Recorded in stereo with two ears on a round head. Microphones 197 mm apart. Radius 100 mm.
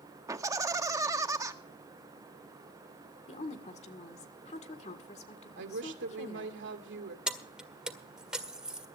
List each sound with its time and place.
0.3 s laughter: 15° right (ahead or behind), 1.6 m
3.3 s a woman speaking: 30° left (ahead or behind), 1.9 m
5.6 s a woman speaking: 55° right (ahead or behind), 2.5 m
7.3 s keys jangling: 5° right (ahead or behind), 1.7 m